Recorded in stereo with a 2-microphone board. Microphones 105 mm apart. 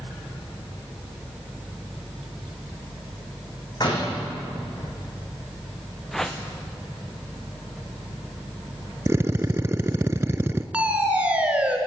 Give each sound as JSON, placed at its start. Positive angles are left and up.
{"t": 3.8, "sound": "a door slam", "side_deg": 45, "distance_m": 6.0}
{"t": 6.1, "sound": "a whoosh", "side_deg": 5, "distance_m": 1.9}
{"t": 9.1, "sound": "a drill", "side_deg": -25, "distance_m": 0.6}
{"t": 10.7, "sound": "a fire alarm", "side_deg": -10, "distance_m": 2.5}